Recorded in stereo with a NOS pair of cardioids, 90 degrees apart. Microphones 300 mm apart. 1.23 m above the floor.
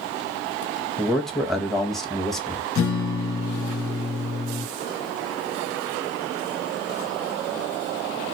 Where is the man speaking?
Straight ahead, 1.3 m.